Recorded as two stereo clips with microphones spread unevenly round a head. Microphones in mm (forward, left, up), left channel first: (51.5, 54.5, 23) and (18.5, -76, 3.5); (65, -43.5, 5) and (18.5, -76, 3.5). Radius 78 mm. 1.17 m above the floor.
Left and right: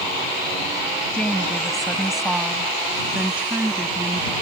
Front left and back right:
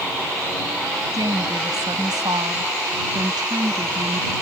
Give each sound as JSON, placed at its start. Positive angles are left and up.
{"t": 1.1, "sound": "a woman speaking", "azimuth_deg": 160}